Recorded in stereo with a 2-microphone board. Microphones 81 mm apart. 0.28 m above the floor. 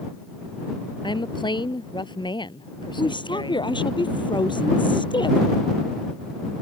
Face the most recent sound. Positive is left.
turn(degrees=80)